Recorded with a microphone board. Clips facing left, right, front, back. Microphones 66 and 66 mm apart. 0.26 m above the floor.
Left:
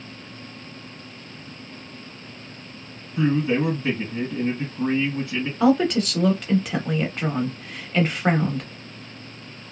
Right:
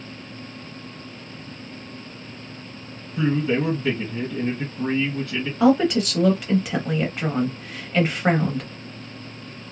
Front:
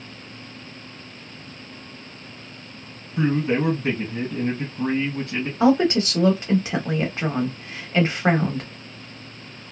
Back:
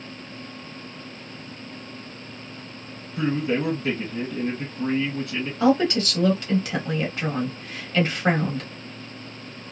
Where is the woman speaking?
5° right, 0.9 m.